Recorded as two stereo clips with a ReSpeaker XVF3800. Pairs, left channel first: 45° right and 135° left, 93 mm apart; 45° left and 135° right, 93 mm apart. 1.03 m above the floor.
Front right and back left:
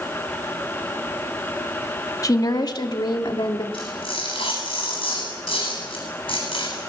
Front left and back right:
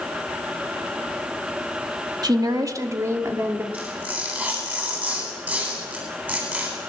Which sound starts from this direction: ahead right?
Tearing paper, at 3.7 s.